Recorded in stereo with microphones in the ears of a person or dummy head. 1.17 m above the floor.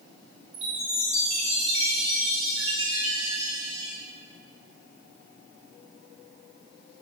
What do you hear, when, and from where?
0.5 s a chime: 35° right (ahead or behind), 1.4 m